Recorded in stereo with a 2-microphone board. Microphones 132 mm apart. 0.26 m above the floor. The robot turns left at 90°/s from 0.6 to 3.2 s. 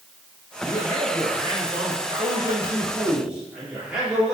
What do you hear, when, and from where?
0.6 s a man speaking: 55° left, 5 m; by 4.3 s 175° right, 5 m